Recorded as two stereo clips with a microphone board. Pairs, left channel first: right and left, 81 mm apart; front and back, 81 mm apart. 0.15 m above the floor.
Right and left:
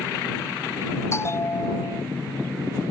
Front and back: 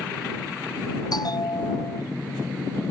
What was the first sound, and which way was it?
A bell, 35° right.